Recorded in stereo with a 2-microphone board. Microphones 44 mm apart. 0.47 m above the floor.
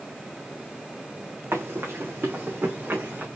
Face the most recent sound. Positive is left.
turn(degrees=-40)  # may be behind; listen again after turning